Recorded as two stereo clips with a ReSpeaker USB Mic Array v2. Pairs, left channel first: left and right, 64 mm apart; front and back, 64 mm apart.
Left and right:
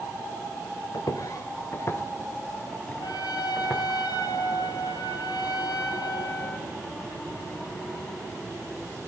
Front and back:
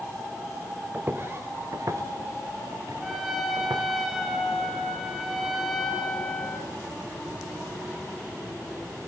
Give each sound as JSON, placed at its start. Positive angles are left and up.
{"t": 0.9, "sound": "footsteps", "azimuth_deg": 115, "distance_m": 2.0}
{"t": 3.0, "sound": "a trumpet", "azimuth_deg": 90, "distance_m": 6.0}